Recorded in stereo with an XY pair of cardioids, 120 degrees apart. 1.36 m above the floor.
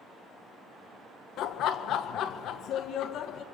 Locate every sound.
1.4 s laughter: 65° left, 0.9 m